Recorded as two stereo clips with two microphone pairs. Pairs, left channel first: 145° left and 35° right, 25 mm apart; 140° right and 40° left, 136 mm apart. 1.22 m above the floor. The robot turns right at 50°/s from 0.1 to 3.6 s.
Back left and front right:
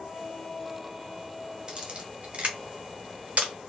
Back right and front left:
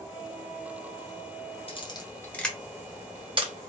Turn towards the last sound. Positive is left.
turn(degrees=0)